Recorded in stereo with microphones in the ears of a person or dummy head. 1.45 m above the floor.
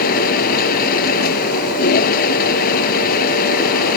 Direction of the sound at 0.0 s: 50° left (ahead or behind).